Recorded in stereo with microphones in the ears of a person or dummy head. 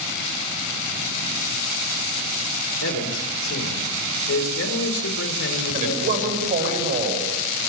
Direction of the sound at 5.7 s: 50° right (ahead or behind).